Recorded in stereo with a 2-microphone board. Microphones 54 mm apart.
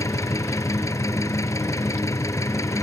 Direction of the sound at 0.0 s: 75° left (ahead or behind).